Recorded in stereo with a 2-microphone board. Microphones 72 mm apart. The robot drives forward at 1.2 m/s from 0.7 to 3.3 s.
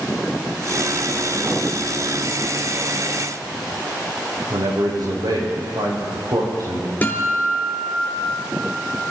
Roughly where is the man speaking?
Right.